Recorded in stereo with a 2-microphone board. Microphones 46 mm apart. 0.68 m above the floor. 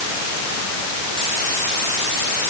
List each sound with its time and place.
Only background noise.